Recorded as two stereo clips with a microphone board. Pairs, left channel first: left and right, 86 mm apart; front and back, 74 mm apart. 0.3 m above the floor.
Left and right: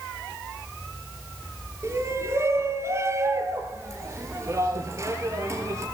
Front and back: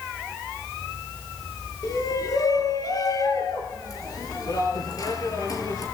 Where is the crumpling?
No crumpling in this recording.